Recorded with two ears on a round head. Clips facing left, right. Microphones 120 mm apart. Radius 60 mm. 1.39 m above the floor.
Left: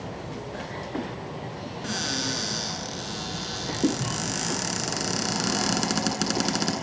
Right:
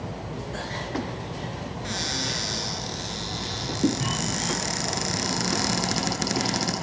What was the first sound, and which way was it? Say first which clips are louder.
A cupboard door: left 3 dB; 85° left.